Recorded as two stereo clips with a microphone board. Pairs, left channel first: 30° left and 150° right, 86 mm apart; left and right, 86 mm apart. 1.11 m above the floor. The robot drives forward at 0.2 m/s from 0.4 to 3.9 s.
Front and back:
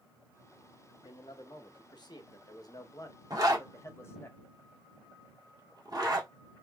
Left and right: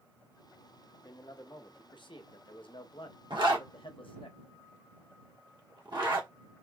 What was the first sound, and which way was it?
A man speaking, 55° left.